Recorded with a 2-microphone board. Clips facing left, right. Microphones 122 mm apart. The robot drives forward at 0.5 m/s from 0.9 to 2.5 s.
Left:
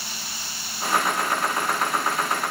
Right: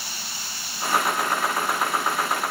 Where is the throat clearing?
No throat clearing in this recording.